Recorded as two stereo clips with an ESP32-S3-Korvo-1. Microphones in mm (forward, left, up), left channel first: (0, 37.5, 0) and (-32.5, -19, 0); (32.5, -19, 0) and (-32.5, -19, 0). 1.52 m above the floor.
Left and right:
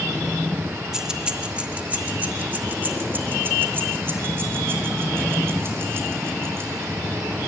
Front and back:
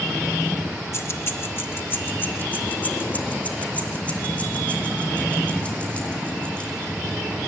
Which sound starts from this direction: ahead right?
Keys jangling, at 0.9 s.